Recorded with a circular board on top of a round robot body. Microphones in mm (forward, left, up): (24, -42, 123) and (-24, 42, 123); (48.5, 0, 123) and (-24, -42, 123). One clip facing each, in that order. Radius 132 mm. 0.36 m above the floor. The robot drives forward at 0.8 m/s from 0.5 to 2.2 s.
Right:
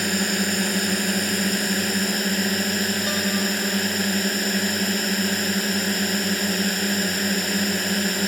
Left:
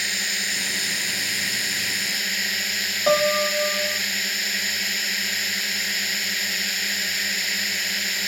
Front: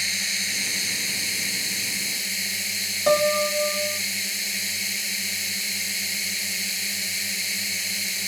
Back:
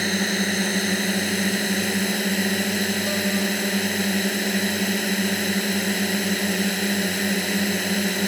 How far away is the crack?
I don't hear a crack.